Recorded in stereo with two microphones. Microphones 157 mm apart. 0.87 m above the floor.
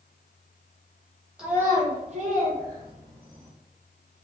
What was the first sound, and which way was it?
A child speaking, 5° right (ahead or behind).